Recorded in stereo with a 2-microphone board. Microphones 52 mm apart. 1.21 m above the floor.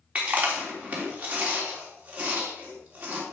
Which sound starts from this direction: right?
Chewing, at 0.1 s.